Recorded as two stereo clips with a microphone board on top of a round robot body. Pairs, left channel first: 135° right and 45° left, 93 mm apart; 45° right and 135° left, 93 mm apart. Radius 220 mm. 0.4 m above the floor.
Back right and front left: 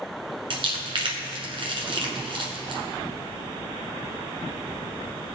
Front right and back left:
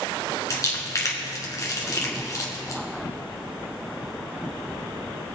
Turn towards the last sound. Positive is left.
turn(degrees=10)